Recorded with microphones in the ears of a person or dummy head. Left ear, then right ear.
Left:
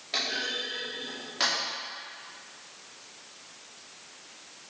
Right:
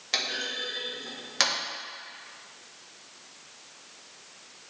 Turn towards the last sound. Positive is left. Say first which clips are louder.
# even
turn(degrees=-75)  # may be behind; listen again after turning